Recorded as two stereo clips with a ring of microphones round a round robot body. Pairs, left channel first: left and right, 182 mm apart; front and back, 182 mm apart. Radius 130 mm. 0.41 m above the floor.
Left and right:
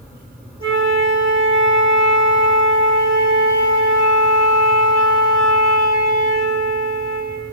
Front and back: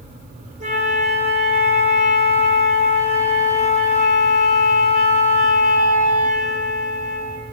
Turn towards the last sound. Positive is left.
turn(degrees=-140)